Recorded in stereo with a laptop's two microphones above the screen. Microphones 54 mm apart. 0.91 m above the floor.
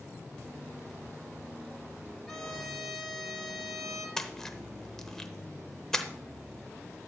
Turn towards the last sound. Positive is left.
turn(degrees=10)  # may be behind; listen again after turning